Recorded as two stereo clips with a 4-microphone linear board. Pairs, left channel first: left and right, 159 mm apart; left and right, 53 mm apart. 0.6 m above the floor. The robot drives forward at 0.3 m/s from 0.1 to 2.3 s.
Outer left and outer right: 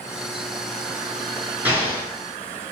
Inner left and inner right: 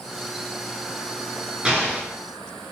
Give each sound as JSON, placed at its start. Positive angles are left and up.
{"t": 1.6, "sound": "an explosion", "side_deg": -10, "distance_m": 9.0}